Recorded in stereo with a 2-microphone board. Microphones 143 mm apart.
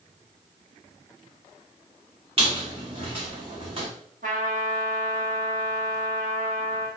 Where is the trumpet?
75° right (ahead or behind), 1.3 m.